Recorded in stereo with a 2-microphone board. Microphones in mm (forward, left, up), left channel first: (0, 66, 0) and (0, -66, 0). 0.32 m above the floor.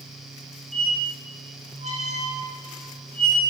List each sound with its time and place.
0.7 s a squeak: 60° right (ahead or behind), 1.9 m